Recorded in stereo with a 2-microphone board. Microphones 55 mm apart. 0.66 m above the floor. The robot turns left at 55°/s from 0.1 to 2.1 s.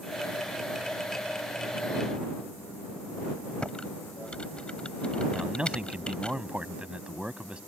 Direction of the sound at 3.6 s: 20° left (ahead or behind).